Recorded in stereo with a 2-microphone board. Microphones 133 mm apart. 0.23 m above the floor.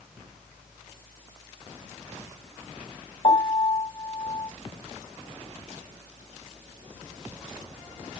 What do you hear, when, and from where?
3.2 s a piano: 45° left (ahead or behind), 0.7 m